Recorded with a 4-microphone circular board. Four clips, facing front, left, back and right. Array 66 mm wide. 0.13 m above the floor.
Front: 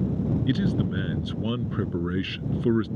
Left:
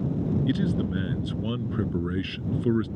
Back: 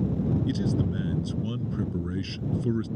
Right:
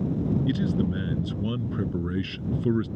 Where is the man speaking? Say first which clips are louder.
Even, front 2 dB; 10° left.